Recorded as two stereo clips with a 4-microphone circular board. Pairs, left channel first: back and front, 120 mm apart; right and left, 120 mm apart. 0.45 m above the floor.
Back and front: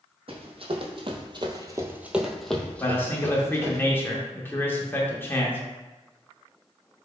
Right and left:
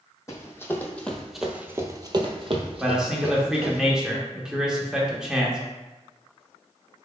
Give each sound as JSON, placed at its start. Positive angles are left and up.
{"t": 0.3, "sound": "running footsteps", "azimuth_deg": -25, "distance_m": 0.9}
{"t": 2.8, "sound": "a man speaking", "azimuth_deg": 165, "distance_m": 0.7}